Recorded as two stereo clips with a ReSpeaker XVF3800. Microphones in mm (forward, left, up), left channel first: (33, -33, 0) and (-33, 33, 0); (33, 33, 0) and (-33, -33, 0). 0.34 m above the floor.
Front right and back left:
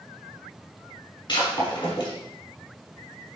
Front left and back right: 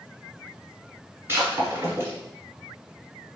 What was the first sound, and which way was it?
Breaking glass, 75° right.